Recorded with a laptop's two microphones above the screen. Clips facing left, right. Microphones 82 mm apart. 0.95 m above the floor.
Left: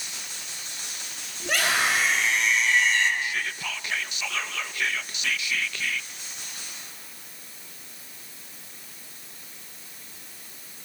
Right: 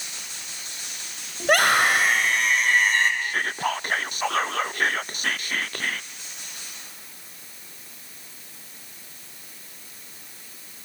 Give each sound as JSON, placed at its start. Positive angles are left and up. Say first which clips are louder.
{"t": 1.4, "sound": "a scream", "louder": "right 6 dB", "side_deg": -55, "distance_m": 5.5}
{"t": 3.2, "sound": "whispering", "louder": "right 5 dB", "side_deg": -45, "distance_m": 0.5}